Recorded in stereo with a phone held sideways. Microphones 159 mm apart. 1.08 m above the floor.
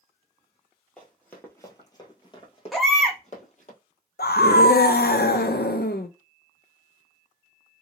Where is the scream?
80° left, 0.6 m.